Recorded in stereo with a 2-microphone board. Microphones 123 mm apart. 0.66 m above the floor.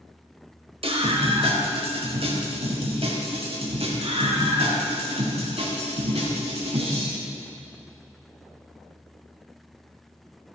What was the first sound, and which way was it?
A scream, 50° right (ahead or behind).